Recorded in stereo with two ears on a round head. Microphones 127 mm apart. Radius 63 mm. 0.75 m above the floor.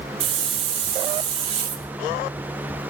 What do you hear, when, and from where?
0.2 s a hiss: 40° right (ahead or behind), 2 m